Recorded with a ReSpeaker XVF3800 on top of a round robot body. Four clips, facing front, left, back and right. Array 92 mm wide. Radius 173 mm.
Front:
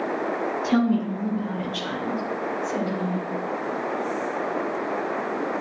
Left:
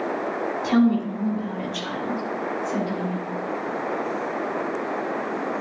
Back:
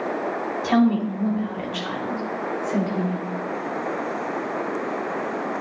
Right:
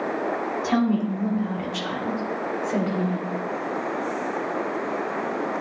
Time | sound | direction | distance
0.6 | a woman speaking | 165° right | 3 m